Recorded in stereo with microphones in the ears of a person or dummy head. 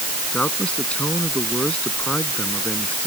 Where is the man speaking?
10° left (ahead or behind).